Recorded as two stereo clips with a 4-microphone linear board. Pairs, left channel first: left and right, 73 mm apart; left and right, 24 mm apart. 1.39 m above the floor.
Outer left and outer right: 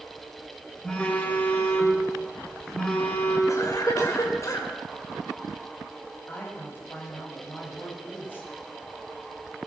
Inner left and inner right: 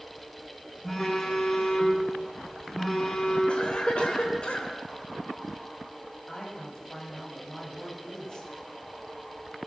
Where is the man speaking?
30° left (ahead or behind), 8.5 m.